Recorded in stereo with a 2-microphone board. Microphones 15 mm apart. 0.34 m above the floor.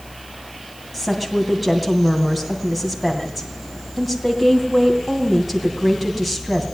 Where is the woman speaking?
10° right (ahead or behind), 2.5 m.